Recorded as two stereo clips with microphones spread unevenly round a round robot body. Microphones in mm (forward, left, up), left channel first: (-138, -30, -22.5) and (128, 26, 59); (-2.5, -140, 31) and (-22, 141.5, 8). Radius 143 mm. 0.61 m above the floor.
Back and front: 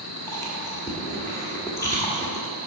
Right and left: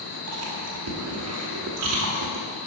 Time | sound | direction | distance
0.3 | chewing | 120° left | 1.6 m